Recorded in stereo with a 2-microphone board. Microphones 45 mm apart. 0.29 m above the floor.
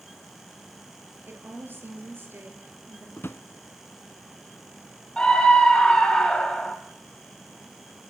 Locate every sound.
1.3 s a woman speaking: 50° right (ahead or behind), 5 m
3.2 s a drawer: 55° left (ahead or behind), 0.9 m
5.2 s a scream: 20° left (ahead or behind), 1.8 m